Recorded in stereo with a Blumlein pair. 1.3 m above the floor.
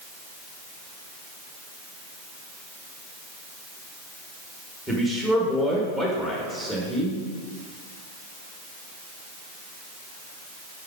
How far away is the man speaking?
About 1.8 m.